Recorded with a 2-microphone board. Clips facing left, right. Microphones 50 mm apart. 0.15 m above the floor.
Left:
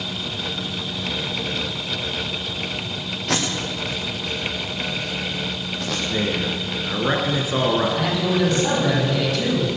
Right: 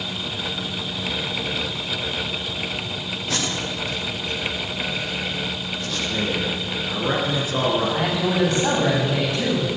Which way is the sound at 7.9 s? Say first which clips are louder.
Even; 25° right (ahead or behind).